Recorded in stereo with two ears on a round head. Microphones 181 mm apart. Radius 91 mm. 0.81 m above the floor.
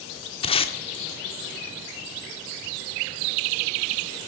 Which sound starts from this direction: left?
Tape being pulled, at 0.4 s.